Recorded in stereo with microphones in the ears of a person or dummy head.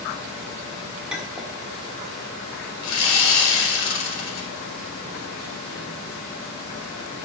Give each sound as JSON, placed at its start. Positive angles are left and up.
{"t": 1.1, "sound": "a clink", "side_deg": -5, "distance_m": 1.5}
{"t": 2.8, "sound": "sawing", "side_deg": 80, "distance_m": 3.0}